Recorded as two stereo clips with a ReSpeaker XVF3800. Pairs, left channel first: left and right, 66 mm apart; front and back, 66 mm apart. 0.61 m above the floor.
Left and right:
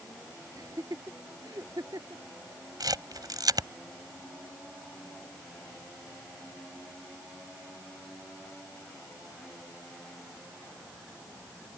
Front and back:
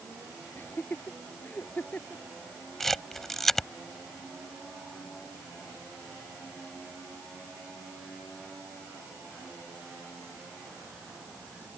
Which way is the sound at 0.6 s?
60° right.